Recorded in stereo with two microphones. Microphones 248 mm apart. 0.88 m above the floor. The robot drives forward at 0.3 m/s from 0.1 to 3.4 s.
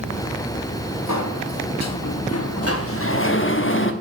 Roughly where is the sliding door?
Left.